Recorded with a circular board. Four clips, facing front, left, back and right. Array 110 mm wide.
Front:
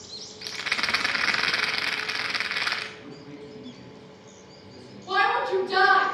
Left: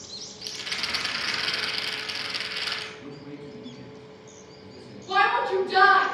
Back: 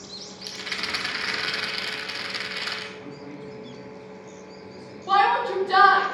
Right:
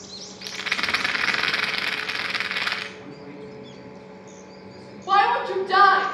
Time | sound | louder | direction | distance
0.4 | a rattle | right 8 dB, front 4 dB | 55° right | 0.8 m
3.0 | a man speaking | right 1 dB, back 3 dB | 120° right | 4.5 m
5.1 | a shout | right 3 dB, back 3 dB | 115° right | 3.5 m